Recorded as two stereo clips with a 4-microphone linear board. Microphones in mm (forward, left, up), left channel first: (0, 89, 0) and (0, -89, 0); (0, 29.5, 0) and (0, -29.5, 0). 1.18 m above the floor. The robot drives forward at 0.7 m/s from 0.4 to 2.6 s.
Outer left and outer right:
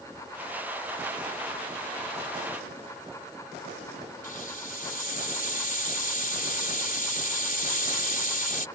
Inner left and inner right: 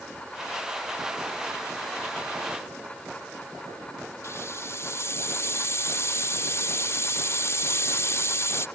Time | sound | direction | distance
4.2 | a hiss | 50° left (ahead or behind) | ?